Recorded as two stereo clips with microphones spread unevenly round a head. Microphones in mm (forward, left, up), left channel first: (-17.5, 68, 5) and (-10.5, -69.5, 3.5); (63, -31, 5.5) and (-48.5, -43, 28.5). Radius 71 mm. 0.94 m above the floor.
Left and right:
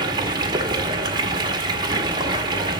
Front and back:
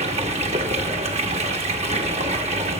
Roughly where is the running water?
Behind right.